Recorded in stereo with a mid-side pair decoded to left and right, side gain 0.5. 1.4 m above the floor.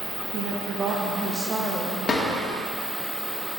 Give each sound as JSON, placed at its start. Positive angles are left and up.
{"t": 0.3, "sound": "a woman speaking", "azimuth_deg": -60, "distance_m": 1.4}
{"t": 2.1, "sound": "a drawer", "azimuth_deg": 30, "distance_m": 1.8}